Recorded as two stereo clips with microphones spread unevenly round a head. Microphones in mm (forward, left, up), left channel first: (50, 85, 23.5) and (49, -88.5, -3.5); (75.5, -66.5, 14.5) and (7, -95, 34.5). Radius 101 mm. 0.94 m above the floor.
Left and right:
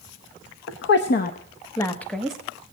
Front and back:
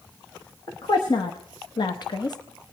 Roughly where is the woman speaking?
Left.